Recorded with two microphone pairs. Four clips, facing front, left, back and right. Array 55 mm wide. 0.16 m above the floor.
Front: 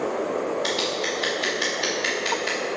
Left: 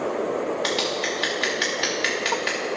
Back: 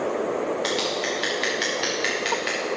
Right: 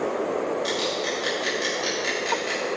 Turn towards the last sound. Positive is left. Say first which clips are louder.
# left 1 dB, even
turn(degrees=110)